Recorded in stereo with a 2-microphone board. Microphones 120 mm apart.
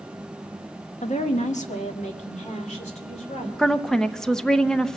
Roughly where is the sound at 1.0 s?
Left.